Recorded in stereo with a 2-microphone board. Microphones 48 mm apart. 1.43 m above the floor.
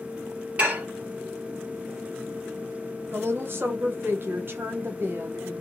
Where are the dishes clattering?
30° right (ahead or behind), 1.3 m.